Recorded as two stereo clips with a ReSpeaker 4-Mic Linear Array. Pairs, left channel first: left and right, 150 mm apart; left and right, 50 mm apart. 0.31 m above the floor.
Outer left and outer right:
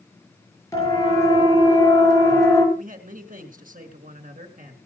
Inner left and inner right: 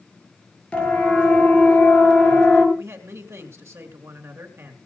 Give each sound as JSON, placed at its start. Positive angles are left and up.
{"t": 0.7, "sound": "a siren", "side_deg": 20, "distance_m": 6.5}
{"t": 2.8, "sound": "a man speaking", "side_deg": -65, "distance_m": 3.5}